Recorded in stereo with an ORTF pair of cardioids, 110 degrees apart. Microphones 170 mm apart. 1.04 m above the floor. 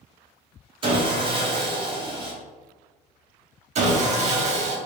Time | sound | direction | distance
0.8 | sawing | 30° right | 1.3 m
3.8 | sawing | 40° right | 1.1 m